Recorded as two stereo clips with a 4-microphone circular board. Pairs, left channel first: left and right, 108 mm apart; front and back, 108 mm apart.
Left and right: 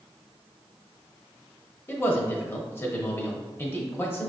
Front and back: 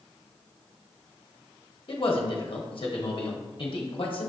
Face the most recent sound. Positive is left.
turn(degrees=25)